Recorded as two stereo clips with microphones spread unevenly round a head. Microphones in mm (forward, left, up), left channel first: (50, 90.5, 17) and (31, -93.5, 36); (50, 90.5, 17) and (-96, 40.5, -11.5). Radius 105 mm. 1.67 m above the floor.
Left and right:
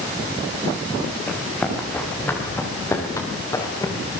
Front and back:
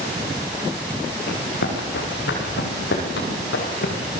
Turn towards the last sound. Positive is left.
turn(degrees=10)